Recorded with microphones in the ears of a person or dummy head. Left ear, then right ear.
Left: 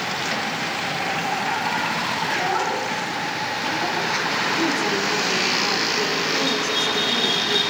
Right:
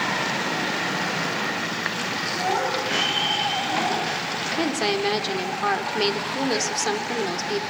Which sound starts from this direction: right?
A woman speaking, at 4.6 s.